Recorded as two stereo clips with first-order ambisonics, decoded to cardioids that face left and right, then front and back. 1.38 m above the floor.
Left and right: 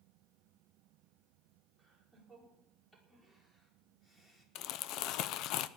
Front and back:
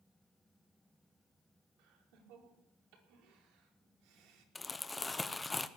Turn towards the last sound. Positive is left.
turn(degrees=80)